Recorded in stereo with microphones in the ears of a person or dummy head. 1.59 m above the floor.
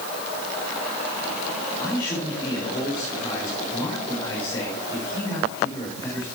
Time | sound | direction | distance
1.8 | a man speaking | 20° left (ahead or behind) | 5 m